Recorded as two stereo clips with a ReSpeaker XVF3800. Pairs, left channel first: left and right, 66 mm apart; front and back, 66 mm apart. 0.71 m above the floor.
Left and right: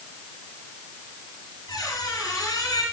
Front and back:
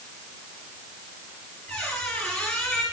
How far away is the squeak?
About 3.5 m.